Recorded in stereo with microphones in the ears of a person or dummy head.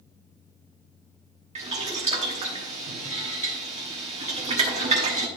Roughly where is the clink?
I don't hear a clink.